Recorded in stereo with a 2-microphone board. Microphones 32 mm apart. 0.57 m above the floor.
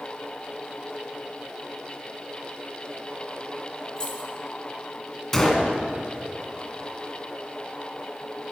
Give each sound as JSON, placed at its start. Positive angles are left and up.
{"t": 4.0, "sound": "keys jangling", "side_deg": 20, "distance_m": 5.0}
{"t": 5.3, "sound": "a gunshot", "side_deg": 5, "distance_m": 2.0}